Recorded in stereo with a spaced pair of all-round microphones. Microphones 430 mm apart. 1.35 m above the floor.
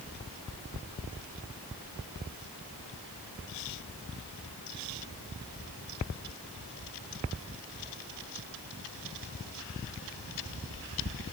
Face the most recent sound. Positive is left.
No sound to turn to.